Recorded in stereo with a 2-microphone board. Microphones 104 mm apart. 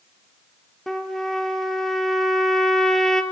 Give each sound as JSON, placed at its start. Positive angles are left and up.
{"t": 0.9, "sound": "a trumpet", "side_deg": 5, "distance_m": 2.5}